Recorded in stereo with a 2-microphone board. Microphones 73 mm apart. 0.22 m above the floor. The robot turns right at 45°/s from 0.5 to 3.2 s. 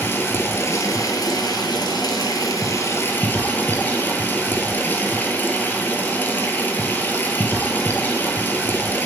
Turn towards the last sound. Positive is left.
turn(degrees=155)